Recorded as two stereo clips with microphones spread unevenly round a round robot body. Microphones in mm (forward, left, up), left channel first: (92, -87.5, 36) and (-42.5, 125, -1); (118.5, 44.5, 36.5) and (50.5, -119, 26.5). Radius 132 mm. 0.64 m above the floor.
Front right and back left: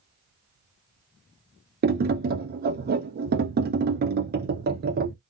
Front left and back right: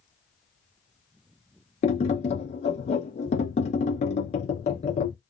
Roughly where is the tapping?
Left.